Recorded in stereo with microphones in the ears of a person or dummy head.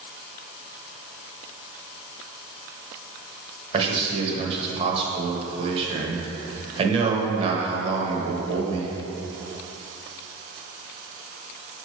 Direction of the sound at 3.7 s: 35° right (ahead or behind).